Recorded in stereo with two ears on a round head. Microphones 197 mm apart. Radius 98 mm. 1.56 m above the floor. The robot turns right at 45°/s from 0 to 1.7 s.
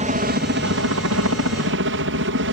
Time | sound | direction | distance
0.0 | a helicopter | 145° right | ?